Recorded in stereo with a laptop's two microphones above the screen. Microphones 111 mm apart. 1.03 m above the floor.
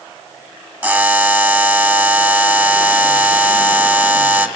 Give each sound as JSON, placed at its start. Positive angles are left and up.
{"t": 0.8, "sound": "a buzzer", "side_deg": -15, "distance_m": 1.8}